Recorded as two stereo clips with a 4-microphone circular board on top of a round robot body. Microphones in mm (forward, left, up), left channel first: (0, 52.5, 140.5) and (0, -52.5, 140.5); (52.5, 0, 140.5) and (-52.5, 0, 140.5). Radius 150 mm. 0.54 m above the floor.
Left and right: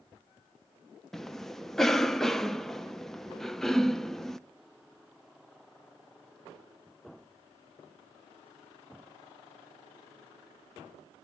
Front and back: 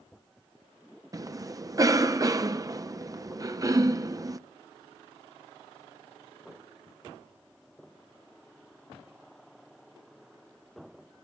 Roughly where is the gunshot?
No gunshot in this recording.